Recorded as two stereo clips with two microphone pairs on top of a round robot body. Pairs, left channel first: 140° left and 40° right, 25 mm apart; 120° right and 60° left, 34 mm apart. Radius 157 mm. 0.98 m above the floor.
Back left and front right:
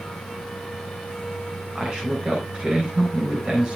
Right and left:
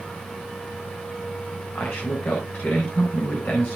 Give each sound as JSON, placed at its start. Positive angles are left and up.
{"t": 1.8, "sound": "a man speaking", "azimuth_deg": -95, "distance_m": 4.5}